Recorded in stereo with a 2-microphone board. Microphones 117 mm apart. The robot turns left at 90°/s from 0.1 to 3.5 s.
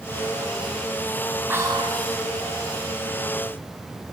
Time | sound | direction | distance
1.5 | whispering | 15° right | 4 m